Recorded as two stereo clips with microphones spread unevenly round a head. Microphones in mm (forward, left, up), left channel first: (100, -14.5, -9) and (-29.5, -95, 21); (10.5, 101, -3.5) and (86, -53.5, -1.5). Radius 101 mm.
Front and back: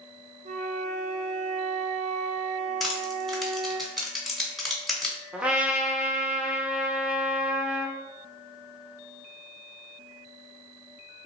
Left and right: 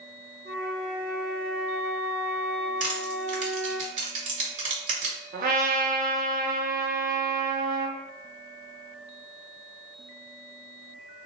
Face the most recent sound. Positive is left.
turn(degrees=-75)